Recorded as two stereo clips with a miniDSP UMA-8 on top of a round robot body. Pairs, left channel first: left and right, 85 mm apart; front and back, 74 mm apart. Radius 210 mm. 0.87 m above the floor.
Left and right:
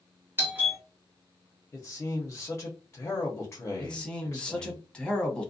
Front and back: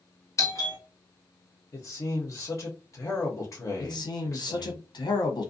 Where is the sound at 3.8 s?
10° left, 1.1 m.